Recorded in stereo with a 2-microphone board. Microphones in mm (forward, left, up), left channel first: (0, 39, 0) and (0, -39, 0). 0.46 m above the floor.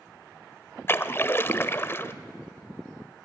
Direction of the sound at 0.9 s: 30° left (ahead or behind).